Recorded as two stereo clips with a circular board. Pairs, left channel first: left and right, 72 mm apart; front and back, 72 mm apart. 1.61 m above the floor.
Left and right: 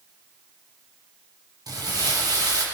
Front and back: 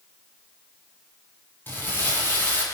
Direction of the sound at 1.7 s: 60° right.